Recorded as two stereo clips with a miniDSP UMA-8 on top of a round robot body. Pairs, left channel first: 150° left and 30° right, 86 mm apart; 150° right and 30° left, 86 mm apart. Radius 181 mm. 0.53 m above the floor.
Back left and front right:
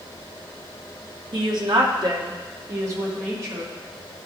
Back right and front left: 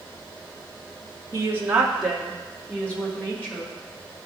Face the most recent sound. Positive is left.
turn(degrees=-85)